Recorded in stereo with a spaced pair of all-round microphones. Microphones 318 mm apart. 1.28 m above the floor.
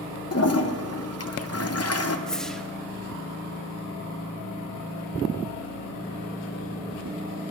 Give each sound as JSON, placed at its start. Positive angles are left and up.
{"t": 0.3, "sound": "a toilet flushing", "side_deg": 45, "distance_m": 0.6}
{"t": 2.3, "sound": "a whoosh", "side_deg": 0, "distance_m": 0.6}